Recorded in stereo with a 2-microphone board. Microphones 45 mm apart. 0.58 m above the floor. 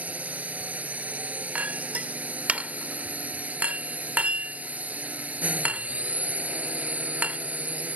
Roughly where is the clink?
Right.